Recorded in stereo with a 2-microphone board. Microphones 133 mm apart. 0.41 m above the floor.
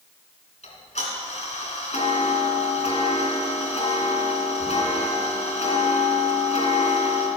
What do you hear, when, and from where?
0.6 s ticking: 55° left (ahead or behind), 2.5 m